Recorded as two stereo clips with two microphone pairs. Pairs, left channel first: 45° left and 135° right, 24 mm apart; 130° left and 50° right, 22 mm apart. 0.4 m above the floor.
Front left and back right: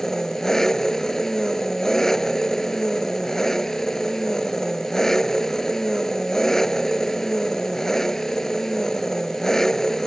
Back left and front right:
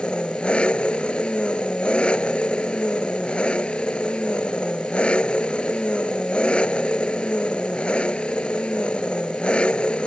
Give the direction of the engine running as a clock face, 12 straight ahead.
8 o'clock.